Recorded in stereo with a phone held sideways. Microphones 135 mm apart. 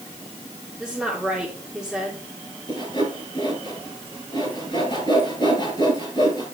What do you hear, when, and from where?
0.8 s a woman speaking: 5° right (ahead or behind), 2.5 m
2.7 s sawing: 35° left (ahead or behind), 7 m